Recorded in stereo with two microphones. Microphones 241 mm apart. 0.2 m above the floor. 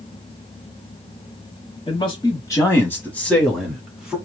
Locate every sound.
1.9 s a man speaking: 20° left (ahead or behind), 1.3 m; by 4.2 s 5° right (ahead or behind), 1.8 m